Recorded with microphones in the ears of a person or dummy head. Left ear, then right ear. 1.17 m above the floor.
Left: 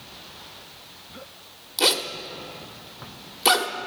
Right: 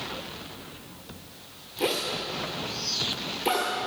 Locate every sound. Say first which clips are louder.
1.8 s a zipper: left 5 dB; 50° left (ahead or behind), 1.1 m